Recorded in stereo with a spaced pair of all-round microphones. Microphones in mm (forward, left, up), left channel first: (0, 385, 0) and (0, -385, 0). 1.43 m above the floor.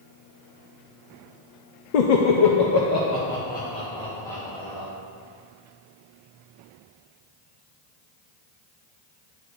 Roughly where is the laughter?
Left.